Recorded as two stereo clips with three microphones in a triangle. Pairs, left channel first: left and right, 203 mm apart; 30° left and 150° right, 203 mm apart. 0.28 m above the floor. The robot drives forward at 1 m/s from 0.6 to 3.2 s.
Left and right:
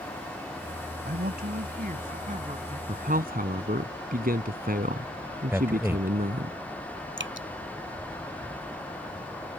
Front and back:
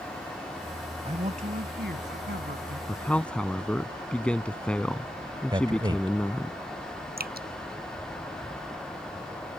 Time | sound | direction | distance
1.1 | a man speaking | 95° right | ?
2.9 | a man speaking | 50° right | ?
5.5 | a man speaking | 150° right | ?
7.2 | dripping | 110° right | ?